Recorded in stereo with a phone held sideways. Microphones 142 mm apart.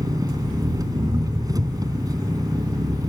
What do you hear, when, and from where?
0.0 s an engine running: 25° right (ahead or behind)